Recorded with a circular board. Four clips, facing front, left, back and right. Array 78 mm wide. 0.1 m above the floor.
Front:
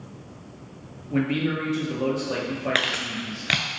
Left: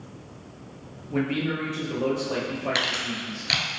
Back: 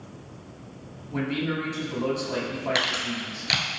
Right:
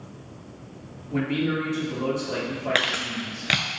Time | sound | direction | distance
1.1 | a man speaking | 10° left | 1.5 m
2.8 | crumpling | 45° right | 0.6 m